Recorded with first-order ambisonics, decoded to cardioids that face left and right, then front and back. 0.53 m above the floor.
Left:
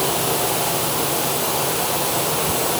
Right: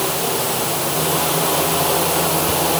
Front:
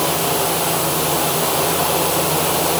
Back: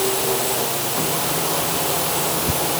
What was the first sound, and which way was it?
Only background noise.